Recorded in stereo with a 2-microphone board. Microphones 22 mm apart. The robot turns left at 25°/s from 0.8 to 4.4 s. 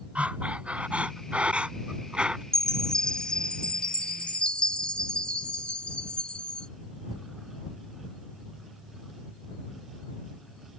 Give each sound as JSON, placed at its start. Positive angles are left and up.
{"t": 0.1, "sound": "breathing", "azimuth_deg": -90}
{"t": 2.5, "sound": "a chime", "azimuth_deg": 150}